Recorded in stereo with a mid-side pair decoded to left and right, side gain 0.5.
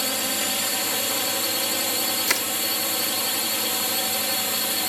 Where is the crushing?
10° left.